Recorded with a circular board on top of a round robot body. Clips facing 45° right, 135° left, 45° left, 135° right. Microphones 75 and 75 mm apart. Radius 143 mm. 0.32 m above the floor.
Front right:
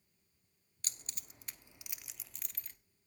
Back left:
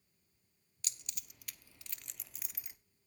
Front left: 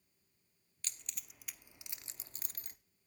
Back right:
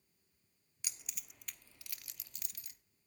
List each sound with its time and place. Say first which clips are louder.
0.8 s keys jangling: front right 1 dB, even; 65° right, 1.0 m; by 2.8 s 60° left, 1.1 m